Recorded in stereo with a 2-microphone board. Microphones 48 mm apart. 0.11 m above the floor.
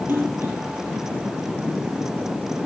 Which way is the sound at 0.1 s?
40° right (ahead or behind).